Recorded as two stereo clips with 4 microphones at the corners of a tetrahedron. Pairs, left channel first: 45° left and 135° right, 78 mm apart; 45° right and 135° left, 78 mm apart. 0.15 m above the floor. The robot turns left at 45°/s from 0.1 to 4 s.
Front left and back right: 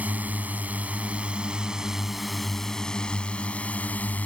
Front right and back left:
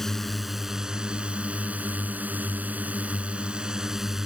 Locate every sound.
0.0 s a drone: 125° right; by 4.3 s 60° left